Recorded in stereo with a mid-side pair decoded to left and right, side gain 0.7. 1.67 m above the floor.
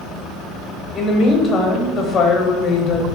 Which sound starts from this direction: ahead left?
A woman speaking, at 0.9 s.